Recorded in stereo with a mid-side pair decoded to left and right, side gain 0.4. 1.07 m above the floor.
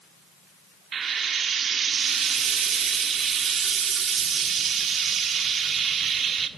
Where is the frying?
55° right, 1.3 m.